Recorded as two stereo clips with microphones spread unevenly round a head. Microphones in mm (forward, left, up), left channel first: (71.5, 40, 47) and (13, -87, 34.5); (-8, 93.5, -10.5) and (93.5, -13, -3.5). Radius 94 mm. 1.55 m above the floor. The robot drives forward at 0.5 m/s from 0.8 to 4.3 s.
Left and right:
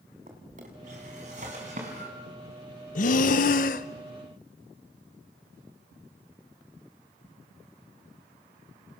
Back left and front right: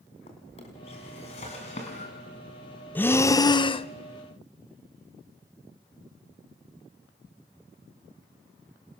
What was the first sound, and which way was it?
A drawer, 170° right.